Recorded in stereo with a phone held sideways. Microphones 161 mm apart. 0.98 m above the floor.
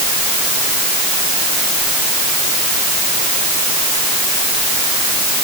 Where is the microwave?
No microwave in this recording.